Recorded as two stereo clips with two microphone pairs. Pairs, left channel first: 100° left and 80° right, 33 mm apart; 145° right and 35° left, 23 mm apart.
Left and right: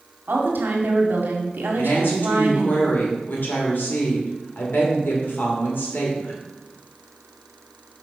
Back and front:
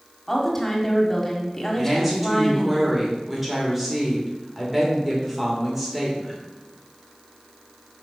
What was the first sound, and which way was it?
A woman speaking, 70° right.